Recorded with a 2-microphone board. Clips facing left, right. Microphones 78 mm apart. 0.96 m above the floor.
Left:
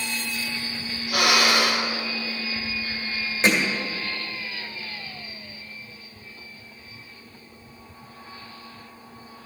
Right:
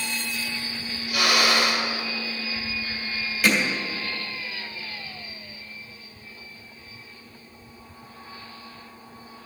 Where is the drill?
75° left (ahead or behind), 2.5 m.